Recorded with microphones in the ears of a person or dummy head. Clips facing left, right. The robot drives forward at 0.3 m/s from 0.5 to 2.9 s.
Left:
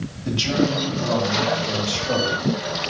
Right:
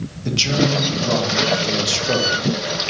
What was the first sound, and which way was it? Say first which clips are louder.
A man speaking: right 1 dB; 40° right (ahead or behind).